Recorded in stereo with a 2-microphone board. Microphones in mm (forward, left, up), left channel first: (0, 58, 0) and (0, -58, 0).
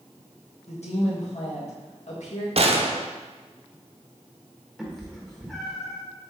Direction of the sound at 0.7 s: 70° left (ahead or behind).